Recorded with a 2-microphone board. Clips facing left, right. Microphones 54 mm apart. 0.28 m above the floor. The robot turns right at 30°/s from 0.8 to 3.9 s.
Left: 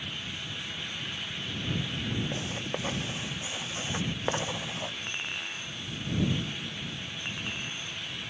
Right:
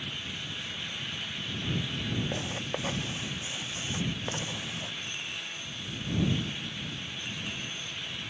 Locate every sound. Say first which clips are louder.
2.3 s writing: even; 15° right (ahead or behind); by 5.0 s 35° left (ahead or behind)
5.1 s a clink: left 3 dB; 40° left (ahead or behind)